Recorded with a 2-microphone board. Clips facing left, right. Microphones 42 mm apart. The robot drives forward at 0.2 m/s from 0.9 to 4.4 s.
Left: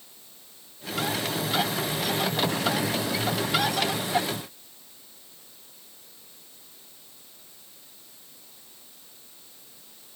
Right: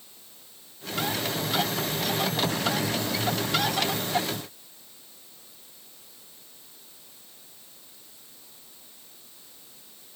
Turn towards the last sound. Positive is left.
No sound to turn to.